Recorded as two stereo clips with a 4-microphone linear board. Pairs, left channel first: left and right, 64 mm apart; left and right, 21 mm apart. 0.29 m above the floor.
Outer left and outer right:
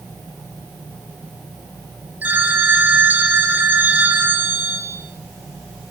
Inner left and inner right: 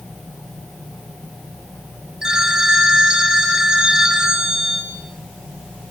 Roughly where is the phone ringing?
Right.